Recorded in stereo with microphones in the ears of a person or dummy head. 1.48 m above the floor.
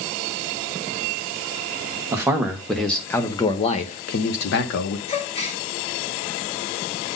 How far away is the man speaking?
About 1.2 m.